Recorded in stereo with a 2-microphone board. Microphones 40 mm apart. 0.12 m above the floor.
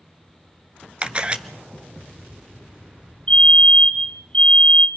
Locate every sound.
1.0 s a camera shutter: 30° right (ahead or behind), 1.1 m
3.3 s a fire alarm: 30° left (ahead or behind), 3 m